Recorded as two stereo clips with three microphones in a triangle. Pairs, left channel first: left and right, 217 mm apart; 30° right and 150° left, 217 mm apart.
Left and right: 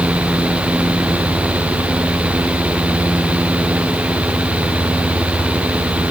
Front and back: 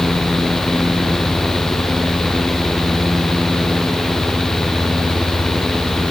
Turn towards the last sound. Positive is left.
No sound to turn to.